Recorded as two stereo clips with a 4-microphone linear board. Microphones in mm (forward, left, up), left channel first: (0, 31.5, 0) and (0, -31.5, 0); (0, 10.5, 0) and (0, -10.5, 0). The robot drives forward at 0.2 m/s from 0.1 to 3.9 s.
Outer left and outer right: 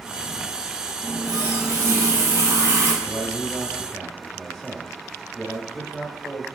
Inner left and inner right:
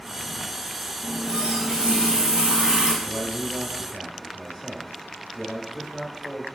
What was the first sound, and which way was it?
A running tap, 45° right (ahead or behind).